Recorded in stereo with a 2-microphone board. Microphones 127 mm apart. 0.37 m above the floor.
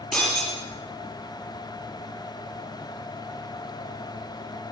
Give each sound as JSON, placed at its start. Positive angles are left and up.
{"t": 0.1, "sound": "breaking glass", "side_deg": 0, "distance_m": 6.0}